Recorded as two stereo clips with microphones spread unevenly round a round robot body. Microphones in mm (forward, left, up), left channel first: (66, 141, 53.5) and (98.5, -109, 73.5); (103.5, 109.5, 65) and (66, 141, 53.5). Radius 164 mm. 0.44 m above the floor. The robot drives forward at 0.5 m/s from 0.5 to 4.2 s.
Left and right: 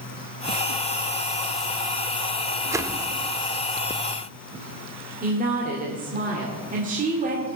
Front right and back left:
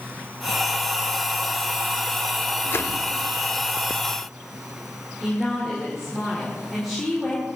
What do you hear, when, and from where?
2.7 s a whoosh: straight ahead, 1.1 m; by 3.1 s 5° right, 1.0 m
5.2 s a woman speaking: 135° right, 1.9 m